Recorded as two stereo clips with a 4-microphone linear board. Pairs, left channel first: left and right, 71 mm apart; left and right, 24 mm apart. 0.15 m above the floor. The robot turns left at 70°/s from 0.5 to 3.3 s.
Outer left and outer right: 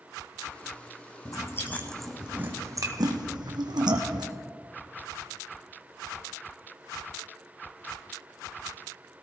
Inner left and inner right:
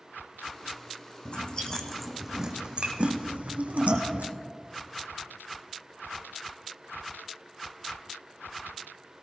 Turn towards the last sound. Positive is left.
turn(degrees=-85)